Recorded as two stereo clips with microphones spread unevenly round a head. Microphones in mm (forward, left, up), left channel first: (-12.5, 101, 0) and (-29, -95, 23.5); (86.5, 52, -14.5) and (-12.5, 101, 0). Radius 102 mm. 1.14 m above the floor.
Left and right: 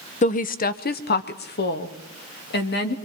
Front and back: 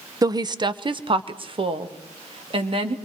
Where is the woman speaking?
100° left, 0.7 m; by 3.0 s 115° left, 2.5 m.